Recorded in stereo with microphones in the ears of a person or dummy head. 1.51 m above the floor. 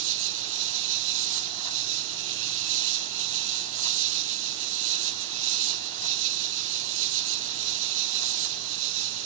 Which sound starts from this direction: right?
An insect, at 0.0 s.